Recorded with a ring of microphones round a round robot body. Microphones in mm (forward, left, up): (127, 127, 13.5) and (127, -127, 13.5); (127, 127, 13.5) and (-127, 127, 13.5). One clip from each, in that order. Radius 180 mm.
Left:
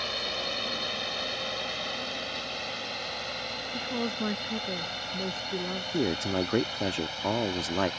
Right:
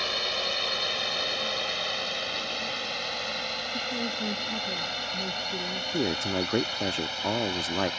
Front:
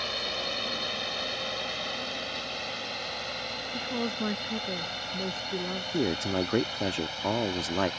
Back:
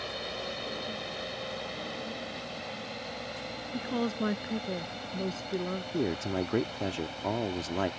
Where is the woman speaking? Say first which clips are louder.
Right 2 dB, back 1 dB; 105° left.